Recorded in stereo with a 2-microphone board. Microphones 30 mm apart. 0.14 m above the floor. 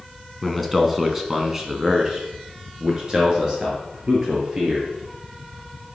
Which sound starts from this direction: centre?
A man speaking, at 0.4 s.